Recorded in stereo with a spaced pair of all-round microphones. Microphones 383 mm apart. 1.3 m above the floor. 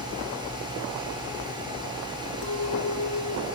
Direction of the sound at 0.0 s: 10° right (ahead or behind).